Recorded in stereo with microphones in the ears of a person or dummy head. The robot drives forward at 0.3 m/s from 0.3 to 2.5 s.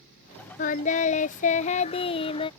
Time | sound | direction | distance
0.6 | singing | 40° left (ahead or behind) | ?